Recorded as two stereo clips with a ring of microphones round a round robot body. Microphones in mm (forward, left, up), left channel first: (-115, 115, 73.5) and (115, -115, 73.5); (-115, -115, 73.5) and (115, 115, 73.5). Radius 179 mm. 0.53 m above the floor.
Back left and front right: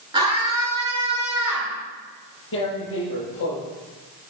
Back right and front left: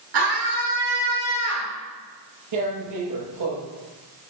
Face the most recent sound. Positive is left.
turn(degrees=80)